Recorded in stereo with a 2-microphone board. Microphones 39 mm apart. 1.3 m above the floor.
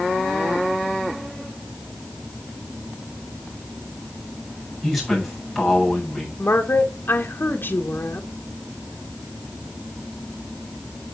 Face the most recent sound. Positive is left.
turn(degrees=65)  # may be behind; listen again after turning